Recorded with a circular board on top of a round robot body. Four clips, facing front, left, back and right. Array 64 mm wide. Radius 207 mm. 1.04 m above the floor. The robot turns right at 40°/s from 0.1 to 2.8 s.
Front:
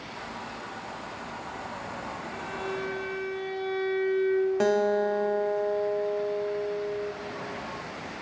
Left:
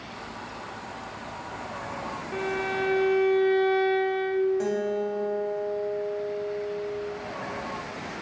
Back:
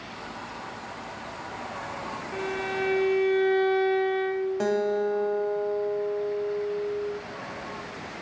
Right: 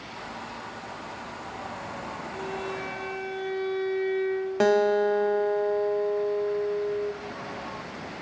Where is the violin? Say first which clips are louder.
Left 6 dB, back 5 dB; 115° left, 0.6 m; by 4.5 s 135° left, 0.6 m.